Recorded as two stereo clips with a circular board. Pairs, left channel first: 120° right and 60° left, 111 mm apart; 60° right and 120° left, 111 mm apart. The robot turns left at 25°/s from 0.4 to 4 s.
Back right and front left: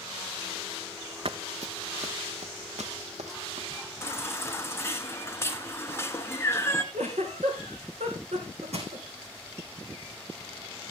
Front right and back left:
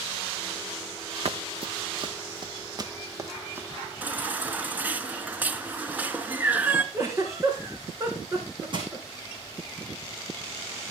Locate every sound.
1.2 s running footsteps: 90° left, 0.8 m; by 3.7 s 50° left, 2 m
4.0 s a baby crying: 175° right, 1.2 m
6.9 s a giggle: 60° left, 3.5 m
8.7 s crushing: 75° left, 4 m